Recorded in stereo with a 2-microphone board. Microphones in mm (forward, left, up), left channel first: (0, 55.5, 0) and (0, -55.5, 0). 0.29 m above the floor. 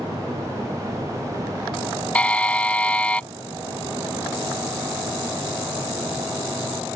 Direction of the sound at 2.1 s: 10° left (ahead or behind).